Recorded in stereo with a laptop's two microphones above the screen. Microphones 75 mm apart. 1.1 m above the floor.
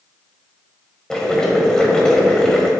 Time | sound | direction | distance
1.1 | boiling | 10° left (ahead or behind) | 1.4 m